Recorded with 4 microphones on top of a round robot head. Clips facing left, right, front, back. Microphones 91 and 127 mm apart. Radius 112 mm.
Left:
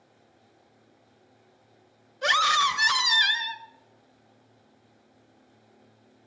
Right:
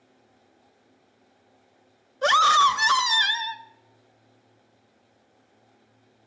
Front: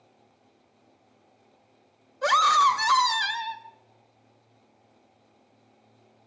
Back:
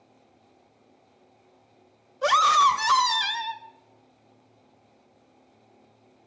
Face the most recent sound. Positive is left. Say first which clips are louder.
# right 6 dB, back 1 dB
turn(degrees=-105)